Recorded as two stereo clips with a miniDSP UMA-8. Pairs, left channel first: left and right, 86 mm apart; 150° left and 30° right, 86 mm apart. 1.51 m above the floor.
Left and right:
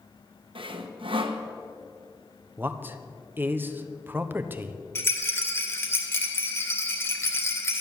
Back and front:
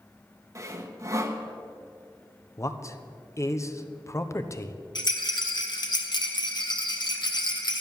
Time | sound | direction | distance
0.6 | sawing | 85° right | 1.2 m
2.6 | a man speaking | 155° right | 1.0 m
5.0 | a rattle | 145° left | 1.9 m